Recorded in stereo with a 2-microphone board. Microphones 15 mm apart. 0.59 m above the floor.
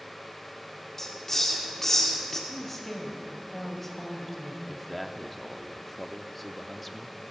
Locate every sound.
1.0 s a hiss: 25° left (ahead or behind), 1.9 m
2.5 s a woman speaking: 15° left (ahead or behind), 2.5 m
4.7 s a man speaking: 5° left (ahead or behind), 0.8 m